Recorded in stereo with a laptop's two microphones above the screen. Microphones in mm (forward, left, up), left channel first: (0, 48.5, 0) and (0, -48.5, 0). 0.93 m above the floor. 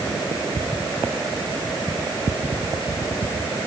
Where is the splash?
No splash in this recording.